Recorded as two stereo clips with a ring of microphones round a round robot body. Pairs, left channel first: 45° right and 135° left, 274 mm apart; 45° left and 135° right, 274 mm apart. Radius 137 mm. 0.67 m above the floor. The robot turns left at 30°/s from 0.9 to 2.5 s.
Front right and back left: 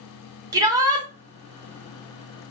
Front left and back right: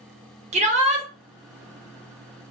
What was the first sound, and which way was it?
A shout, 165° right.